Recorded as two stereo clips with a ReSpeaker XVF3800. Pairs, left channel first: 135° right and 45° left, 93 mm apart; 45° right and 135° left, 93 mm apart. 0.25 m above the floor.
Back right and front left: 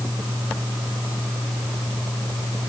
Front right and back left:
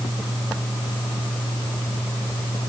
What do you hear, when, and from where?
Only background noise.